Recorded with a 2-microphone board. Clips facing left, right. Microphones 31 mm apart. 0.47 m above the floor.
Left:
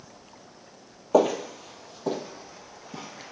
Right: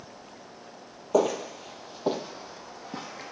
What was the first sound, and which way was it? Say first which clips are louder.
Footsteps: left 3 dB; 15° left (ahead or behind).